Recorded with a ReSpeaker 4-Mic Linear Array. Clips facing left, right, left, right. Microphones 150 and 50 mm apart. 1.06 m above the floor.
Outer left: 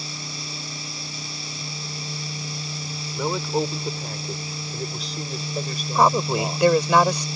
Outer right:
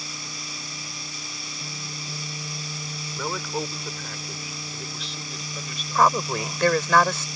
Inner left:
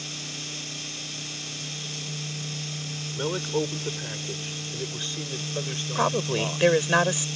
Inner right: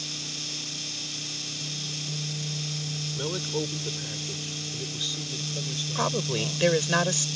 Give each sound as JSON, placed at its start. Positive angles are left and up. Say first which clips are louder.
{"t": 3.2, "sound": "a man speaking", "louder": "outer left 6 dB, inner left 4 dB", "side_deg": 20}
{"t": 6.0, "sound": "a woman speaking", "louder": "outer left 2 dB, inner left 3 dB", "side_deg": 20}